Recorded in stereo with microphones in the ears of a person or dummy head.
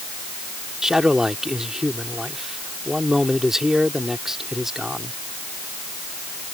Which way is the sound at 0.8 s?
Centre (ahead or behind).